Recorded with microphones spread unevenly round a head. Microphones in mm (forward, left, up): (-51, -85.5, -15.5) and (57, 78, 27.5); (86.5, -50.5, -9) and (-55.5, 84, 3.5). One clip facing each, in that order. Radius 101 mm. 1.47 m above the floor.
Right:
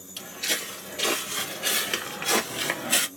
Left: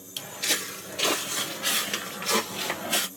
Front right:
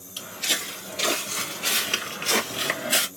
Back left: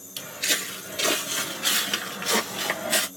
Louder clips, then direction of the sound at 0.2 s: Left 1 dB, back left 1 dB; 95° left.